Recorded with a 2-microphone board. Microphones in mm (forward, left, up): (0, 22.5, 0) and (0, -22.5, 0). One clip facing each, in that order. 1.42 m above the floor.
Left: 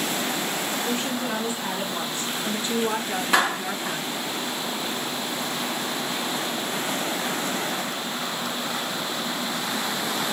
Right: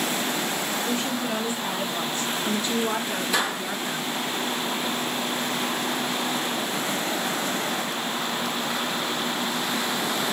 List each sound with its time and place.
0.8 s a woman speaking: 25° left (ahead or behind), 3 m
3.3 s a clap: 55° left (ahead or behind), 2 m